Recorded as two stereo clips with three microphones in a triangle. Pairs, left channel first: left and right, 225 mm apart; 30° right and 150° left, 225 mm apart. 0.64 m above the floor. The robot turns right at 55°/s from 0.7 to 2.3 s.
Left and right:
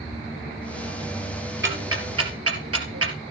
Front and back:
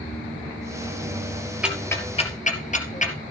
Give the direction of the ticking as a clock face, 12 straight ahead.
4 o'clock.